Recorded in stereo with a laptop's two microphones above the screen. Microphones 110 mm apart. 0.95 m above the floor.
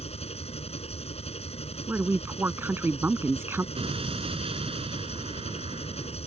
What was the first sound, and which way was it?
An engine running, 70° left (ahead or behind).